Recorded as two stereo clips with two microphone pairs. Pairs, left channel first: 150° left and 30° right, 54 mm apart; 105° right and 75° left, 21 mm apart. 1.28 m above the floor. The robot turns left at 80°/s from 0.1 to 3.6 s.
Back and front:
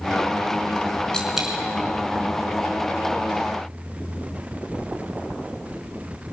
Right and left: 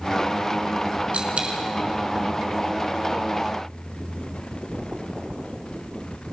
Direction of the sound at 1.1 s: 70° left.